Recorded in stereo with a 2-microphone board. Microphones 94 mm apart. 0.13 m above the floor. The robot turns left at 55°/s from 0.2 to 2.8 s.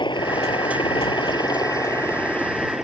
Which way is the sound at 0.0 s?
55° left (ahead or behind).